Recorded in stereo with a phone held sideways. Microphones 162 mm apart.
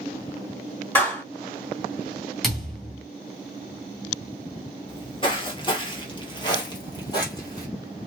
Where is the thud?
Centre (ahead or behind), 1.9 m.